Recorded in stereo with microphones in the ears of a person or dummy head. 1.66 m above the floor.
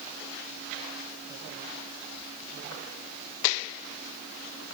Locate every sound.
Only background noise.